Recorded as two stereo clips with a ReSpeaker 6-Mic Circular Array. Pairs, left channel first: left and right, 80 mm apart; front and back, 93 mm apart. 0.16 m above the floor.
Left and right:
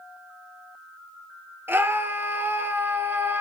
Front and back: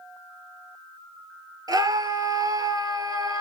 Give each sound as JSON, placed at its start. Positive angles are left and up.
{"t": 1.7, "sound": "a scream", "azimuth_deg": -145, "distance_m": 3.5}